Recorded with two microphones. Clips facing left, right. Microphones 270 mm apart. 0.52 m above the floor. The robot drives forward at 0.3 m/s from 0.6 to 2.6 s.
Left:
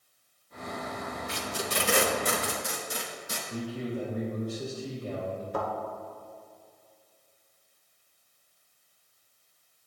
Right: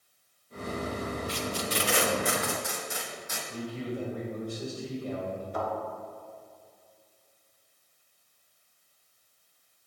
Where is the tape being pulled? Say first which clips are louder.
Right 2 dB; 65° left (ahead or behind), 0.6 m; by 3.4 s 40° left (ahead or behind), 0.8 m.